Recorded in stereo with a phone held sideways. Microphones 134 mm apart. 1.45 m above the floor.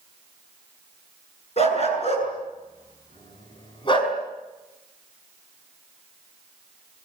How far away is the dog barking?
About 7 m.